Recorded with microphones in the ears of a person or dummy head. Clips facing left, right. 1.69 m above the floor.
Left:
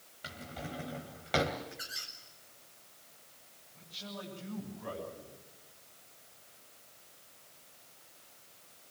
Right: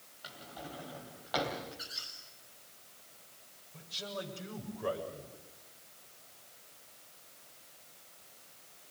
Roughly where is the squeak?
Left.